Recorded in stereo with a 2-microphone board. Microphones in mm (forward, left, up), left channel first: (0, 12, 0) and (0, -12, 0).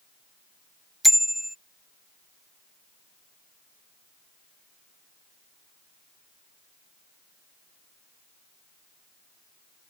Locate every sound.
1.0 s a bicycle bell: 5° right (ahead or behind)